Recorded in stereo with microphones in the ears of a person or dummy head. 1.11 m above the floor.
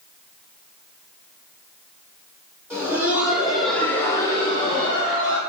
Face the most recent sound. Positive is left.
turn(degrees=30)  # may be behind; listen again after turning